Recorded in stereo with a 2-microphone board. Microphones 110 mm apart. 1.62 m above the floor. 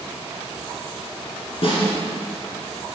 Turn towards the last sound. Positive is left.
turn(degrees=55)  # may be behind; listen again after turning